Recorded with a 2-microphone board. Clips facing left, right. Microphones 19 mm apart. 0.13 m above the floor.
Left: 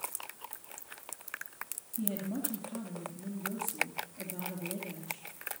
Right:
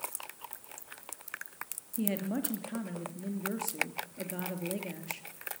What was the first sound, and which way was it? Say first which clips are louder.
A woman speaking: right 3 dB; 60° right (ahead or behind).